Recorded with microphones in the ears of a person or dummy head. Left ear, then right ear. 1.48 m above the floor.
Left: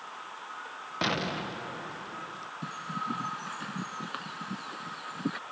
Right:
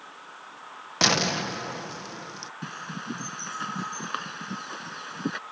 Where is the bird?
25° right (ahead or behind).